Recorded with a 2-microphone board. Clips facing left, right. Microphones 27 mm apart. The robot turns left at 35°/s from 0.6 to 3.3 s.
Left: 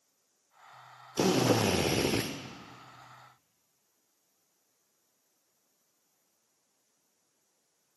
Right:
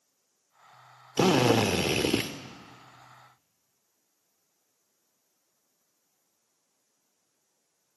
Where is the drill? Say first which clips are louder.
Right 4 dB; 45° right, 0.5 m; by 2.3 s 85° right, 0.5 m.